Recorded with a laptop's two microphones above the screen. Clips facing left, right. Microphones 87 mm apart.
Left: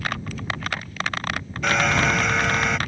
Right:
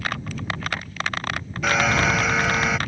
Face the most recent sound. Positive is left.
turn(degrees=-5)  # may be behind; listen again after turning